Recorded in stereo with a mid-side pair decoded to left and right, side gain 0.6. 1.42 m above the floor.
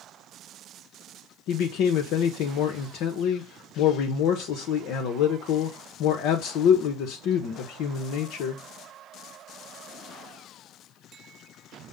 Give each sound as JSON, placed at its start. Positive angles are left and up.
{"t": 1.5, "sound": "a man speaking", "azimuth_deg": 70, "distance_m": 0.7}